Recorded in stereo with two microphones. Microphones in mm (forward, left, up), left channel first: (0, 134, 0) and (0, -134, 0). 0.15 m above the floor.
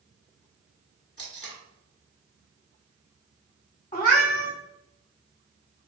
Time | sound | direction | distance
1.2 | tape being pulled | 55° left (ahead or behind) | 0.9 m
3.9 | a cat meowing | 30° left (ahead or behind) | 1.0 m